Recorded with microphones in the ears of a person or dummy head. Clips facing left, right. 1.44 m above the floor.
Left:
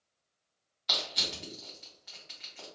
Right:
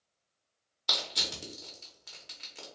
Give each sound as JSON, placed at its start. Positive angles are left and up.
{"t": 0.9, "sound": "crushing", "side_deg": -55, "distance_m": 0.9}